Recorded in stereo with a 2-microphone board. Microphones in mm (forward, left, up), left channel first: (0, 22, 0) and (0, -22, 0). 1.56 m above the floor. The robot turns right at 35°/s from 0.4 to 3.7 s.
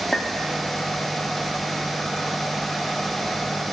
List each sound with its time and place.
0.1 s a clink: 5° left (ahead or behind), 1.4 m